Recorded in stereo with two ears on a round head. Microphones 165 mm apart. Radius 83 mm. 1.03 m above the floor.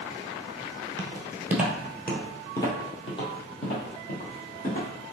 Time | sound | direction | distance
1.0 | footsteps | 25° right (ahead or behind) | 1.1 m